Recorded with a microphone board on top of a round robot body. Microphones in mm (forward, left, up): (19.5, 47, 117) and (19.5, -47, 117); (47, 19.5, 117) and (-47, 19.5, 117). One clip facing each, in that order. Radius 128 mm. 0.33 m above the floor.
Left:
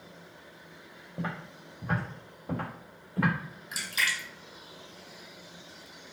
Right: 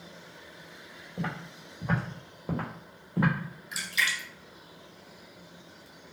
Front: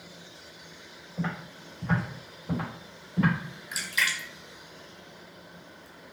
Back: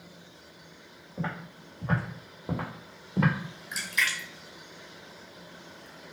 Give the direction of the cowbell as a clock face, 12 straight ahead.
I don't hear a cowbell.